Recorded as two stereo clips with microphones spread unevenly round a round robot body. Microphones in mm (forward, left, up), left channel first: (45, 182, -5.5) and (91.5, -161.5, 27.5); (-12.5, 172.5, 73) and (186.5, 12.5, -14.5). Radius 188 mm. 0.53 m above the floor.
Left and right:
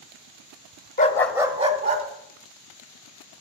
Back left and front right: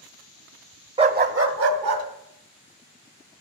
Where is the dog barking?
30° left, 0.9 m; by 2.0 s 15° right, 2 m.